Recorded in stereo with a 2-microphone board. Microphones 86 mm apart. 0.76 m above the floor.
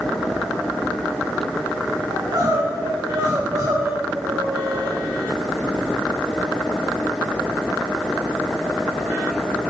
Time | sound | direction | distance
2.1 | crying | 35° right (ahead or behind) | 3 m